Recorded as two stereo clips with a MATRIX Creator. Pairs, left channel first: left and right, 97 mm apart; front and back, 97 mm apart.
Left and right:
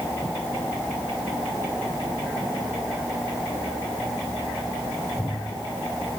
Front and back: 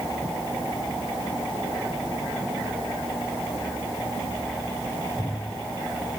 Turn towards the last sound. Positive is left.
No sound to turn to.